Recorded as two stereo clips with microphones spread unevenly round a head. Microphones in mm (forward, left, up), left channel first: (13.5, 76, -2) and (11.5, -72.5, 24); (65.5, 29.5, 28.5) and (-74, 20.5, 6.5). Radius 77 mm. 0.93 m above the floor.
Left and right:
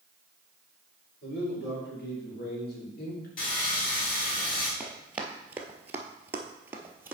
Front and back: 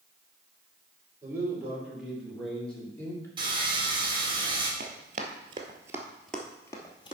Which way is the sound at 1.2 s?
110° left.